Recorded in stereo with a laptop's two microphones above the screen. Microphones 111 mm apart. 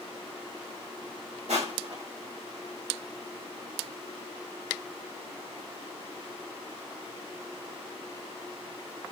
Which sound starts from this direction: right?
Crushing, at 1.5 s.